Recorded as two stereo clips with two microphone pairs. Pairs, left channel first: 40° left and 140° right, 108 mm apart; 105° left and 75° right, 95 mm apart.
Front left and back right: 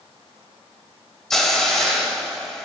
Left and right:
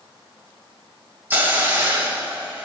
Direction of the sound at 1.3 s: 40° right.